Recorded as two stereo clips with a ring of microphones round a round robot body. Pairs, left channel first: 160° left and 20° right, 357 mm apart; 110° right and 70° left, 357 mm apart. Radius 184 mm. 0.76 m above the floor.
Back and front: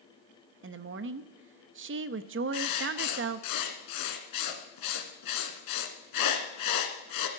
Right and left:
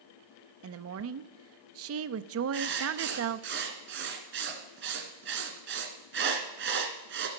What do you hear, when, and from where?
0.6 s a woman speaking: 25° left, 0.6 m
2.5 s writing: 125° left, 1.4 m